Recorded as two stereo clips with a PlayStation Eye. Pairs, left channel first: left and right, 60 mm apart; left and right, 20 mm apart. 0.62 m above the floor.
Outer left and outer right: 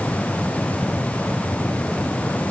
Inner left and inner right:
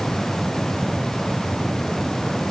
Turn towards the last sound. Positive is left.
No sound to turn to.